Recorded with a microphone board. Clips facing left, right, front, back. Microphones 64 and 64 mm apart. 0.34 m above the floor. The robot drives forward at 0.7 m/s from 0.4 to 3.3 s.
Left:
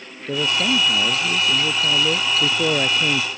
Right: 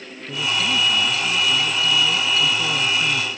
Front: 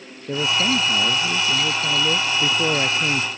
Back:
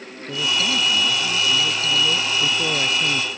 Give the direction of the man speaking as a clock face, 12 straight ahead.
10 o'clock.